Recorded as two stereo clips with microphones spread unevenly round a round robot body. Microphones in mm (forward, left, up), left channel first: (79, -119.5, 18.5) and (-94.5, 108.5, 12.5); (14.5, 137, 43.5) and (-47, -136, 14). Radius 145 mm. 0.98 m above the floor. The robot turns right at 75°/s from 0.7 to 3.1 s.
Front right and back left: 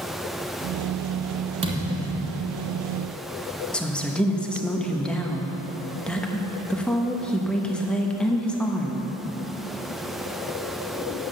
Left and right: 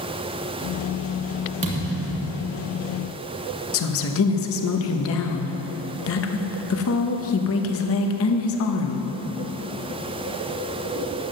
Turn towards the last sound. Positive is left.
turn(degrees=35)